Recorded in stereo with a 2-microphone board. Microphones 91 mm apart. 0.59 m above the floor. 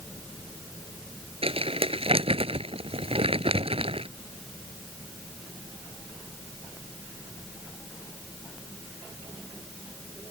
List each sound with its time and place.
1.4 s crumpling: 80° right